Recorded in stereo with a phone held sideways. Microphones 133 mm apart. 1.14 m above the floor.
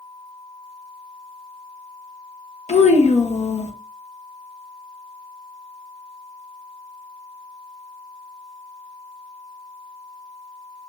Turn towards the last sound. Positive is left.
turn(degrees=65)  # may be behind; listen again after turning